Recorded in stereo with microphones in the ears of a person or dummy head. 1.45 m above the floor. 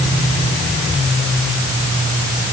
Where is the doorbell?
No doorbell in this recording.